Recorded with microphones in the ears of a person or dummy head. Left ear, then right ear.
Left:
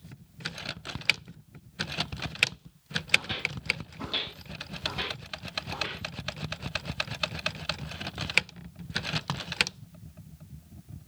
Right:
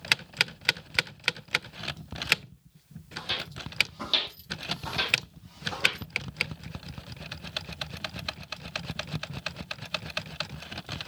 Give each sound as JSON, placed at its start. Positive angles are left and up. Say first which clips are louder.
{"t": 3.2, "sound": "footsteps", "louder": "right 1 dB", "side_deg": -25, "distance_m": 2.5}